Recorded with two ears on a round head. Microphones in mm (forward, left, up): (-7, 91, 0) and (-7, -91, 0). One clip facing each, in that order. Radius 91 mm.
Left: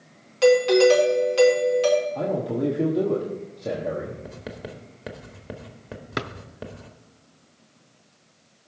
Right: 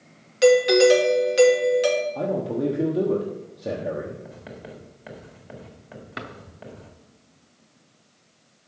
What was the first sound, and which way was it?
A doorbell, 20° right (ahead or behind).